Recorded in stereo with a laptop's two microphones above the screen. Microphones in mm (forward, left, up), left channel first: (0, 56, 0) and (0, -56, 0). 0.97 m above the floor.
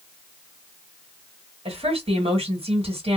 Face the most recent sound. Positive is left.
turn(degrees=-60)  # may be behind; listen again after turning